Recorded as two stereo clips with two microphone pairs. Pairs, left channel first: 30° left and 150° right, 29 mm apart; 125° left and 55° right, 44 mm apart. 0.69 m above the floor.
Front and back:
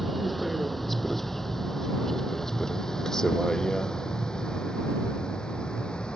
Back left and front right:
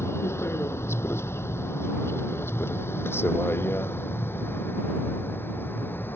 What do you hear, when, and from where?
0.0 s a vehicle: 120° left; by 6.2 s 90° left